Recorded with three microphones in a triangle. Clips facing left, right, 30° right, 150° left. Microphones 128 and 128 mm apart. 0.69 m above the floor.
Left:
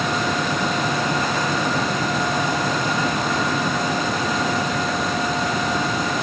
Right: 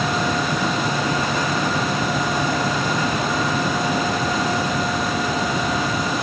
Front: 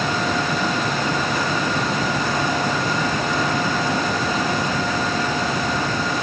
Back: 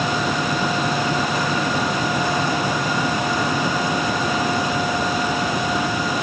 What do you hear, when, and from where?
Only background noise.